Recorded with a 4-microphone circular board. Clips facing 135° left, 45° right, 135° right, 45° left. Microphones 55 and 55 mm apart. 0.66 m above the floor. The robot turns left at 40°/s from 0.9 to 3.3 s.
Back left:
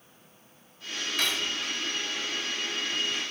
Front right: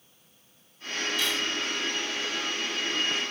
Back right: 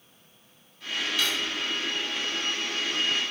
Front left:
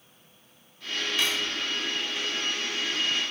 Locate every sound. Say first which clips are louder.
1.2 s cutlery clinking: back left 2 dB, front left 1 dB; 110° left, 1.2 m; by 1.6 s 95° left, 1.2 m